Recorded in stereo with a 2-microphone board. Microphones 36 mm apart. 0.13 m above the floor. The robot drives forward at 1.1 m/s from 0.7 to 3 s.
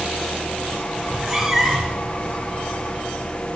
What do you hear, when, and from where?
1.0 s a cat meowing: 5° right (ahead or behind), 5.5 m; by 2.0 s 10° right (ahead or behind), 4.5 m